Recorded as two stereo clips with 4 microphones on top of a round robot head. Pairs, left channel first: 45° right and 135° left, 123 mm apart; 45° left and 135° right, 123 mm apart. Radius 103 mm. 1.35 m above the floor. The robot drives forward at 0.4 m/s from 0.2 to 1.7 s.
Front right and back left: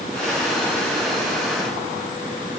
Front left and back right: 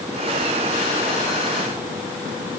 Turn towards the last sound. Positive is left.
No sound to turn to.